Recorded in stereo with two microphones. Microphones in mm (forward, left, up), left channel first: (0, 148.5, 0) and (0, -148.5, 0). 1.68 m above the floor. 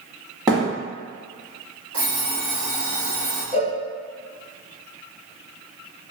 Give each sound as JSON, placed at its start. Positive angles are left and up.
{"t": 0.5, "sound": "a thud", "side_deg": -15, "distance_m": 1.4}
{"t": 1.9, "sound": "an alarm clock", "side_deg": -50, "distance_m": 1.4}
{"t": 3.5, "sound": "a cowbell", "side_deg": -20, "distance_m": 1.0}